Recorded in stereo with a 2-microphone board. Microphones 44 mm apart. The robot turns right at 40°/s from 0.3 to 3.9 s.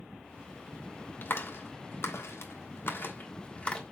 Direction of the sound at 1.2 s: 50° left (ahead or behind).